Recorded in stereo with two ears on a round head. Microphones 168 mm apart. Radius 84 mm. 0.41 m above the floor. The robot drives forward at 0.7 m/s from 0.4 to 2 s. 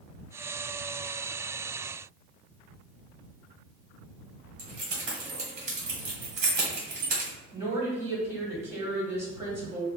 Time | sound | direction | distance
4.6 | keys jangling | 40° right (ahead or behind) | 1.4 m
7.5 | a woman speaking | 15° right (ahead or behind) | 1.7 m